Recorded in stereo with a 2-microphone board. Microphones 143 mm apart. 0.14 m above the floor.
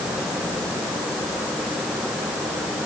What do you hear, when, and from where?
Only background noise.